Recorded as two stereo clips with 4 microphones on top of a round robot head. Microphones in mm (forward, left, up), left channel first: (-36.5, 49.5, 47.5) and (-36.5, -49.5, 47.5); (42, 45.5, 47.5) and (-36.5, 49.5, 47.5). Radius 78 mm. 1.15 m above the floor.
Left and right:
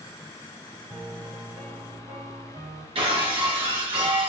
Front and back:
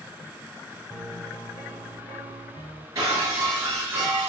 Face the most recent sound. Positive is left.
turn(degrees=-115)